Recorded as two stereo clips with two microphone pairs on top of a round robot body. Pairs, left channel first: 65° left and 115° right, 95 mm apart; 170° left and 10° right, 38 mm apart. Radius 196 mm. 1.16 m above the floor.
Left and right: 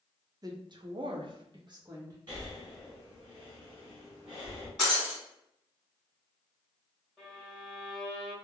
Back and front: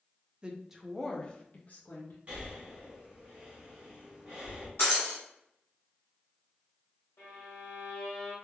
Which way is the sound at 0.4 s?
70° right.